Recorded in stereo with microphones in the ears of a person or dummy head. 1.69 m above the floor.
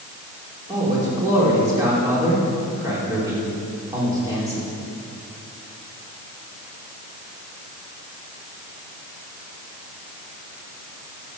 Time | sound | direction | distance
0.7 | a man speaking | 20° right (ahead or behind) | 5 m